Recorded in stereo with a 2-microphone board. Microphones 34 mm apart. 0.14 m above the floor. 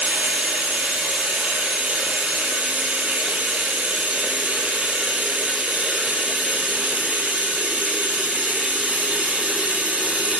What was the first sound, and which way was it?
Running water, 50° right (ahead or behind).